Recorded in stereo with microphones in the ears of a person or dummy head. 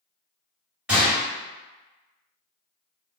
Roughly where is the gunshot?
Centre.